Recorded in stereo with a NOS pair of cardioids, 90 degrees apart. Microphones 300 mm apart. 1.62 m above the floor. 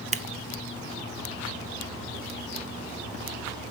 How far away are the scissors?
About 0.7 m.